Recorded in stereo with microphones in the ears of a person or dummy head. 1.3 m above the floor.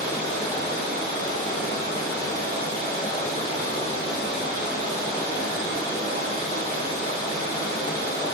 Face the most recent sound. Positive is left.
turn(degrees=35)  # may be behind; listen again after turning